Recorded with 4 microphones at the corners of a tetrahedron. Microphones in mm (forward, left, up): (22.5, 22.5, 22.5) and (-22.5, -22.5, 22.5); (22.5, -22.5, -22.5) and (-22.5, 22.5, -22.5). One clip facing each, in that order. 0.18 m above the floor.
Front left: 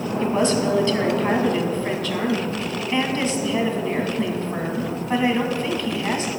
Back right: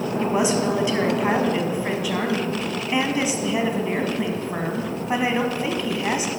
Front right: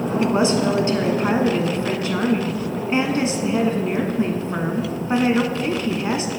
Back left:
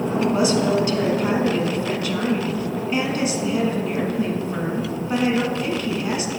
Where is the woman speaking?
65° right, 1.2 m.